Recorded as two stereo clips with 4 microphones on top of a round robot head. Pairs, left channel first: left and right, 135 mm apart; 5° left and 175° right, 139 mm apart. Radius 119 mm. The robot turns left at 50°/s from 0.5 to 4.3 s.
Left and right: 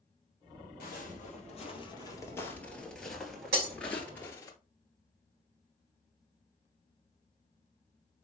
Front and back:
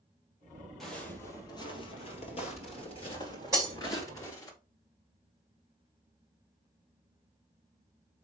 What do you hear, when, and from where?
0.8 s footsteps: 90° left, 2.5 m; by 4.5 s 45° left, 1.5 m
3.5 s breaking glass: 100° right, 2.5 m; by 3.7 s 110° right, 2.5 m